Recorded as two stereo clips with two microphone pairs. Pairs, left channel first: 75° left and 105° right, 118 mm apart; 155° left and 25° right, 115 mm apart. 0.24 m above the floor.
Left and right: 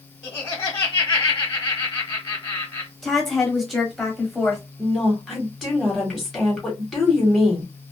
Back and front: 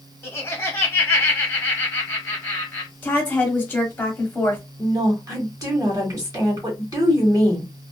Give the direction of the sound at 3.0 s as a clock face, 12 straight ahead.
6 o'clock.